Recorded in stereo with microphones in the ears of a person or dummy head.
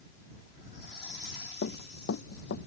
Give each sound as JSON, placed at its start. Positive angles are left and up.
{"t": 1.6, "sound": "running footsteps", "side_deg": 50}